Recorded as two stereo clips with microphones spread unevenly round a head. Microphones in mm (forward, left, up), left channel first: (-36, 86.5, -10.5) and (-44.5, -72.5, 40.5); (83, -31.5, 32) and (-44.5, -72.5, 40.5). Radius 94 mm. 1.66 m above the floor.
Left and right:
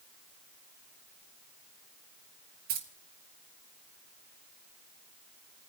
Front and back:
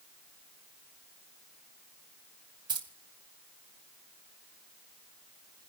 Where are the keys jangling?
105° right, 2.5 m.